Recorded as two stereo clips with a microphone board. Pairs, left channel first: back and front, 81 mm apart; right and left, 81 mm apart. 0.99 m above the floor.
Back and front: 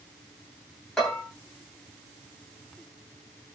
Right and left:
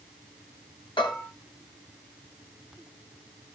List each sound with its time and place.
1.0 s a bell: 100° right, 9.5 m